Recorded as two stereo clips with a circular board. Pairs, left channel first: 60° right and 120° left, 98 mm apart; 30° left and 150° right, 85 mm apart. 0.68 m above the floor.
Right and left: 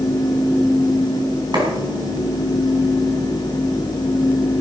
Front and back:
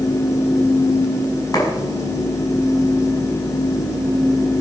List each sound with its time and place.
1.5 s a clap: 80° left, 5.5 m